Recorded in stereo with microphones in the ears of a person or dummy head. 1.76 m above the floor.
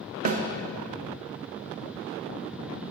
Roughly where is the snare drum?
Right.